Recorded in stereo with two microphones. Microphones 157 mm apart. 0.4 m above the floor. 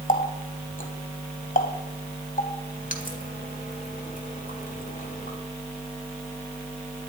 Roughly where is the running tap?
Left.